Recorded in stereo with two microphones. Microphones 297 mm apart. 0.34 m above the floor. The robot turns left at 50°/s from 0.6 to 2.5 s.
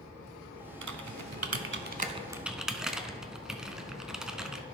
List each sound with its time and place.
0.8 s typing on a keyboard: 80° right, 0.6 m; by 4.7 s centre (ahead or behind), 0.6 m